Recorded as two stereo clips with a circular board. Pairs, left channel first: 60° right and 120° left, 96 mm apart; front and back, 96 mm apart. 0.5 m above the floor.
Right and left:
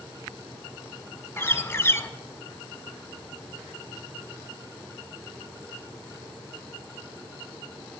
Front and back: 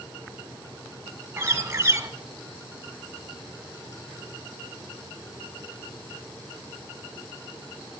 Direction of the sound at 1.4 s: 120° right.